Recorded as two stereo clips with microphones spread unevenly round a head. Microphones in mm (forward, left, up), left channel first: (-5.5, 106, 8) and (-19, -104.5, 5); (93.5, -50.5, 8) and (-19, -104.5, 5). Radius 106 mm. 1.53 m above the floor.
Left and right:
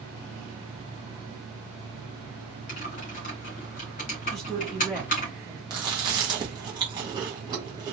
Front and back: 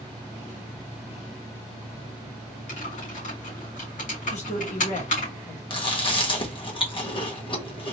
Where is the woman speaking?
5° right, 1.6 m.